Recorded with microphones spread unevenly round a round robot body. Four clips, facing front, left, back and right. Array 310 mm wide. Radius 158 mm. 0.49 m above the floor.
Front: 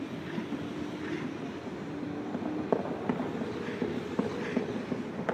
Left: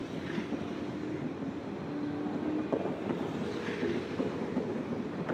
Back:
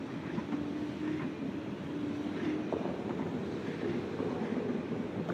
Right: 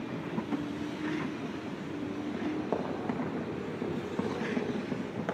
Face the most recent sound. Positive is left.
turn(degrees=-25)